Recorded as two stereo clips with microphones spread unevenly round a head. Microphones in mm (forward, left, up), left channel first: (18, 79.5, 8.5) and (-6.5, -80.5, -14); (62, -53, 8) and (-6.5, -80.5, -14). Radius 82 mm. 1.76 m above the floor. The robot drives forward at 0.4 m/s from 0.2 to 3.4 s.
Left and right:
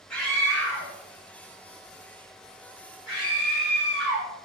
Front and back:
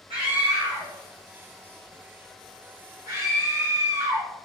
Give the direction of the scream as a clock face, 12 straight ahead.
7 o'clock.